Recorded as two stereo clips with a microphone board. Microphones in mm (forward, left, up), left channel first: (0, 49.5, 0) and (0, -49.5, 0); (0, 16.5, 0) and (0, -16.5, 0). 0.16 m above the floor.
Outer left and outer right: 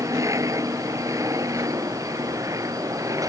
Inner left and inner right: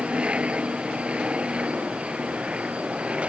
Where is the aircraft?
35° right (ahead or behind).